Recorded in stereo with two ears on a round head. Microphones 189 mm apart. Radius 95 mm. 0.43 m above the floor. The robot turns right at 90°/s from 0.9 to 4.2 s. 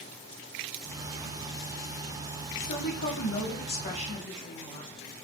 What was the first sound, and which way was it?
A woman speaking, 15° left.